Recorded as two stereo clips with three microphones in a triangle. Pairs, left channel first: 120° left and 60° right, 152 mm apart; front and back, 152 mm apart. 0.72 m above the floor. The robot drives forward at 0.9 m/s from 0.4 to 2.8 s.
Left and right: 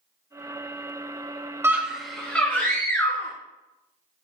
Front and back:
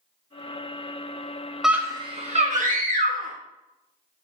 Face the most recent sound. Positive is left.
turn(degrees=-170)